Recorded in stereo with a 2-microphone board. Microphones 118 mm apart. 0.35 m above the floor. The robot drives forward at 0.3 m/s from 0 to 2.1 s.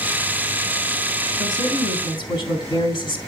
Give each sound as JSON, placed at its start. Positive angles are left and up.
{"t": 1.4, "sound": "a woman speaking", "side_deg": 40, "distance_m": 2.5}